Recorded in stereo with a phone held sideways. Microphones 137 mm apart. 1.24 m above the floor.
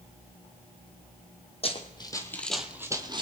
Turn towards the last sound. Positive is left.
turn(degrees=-35)  # may be behind; listen again after turning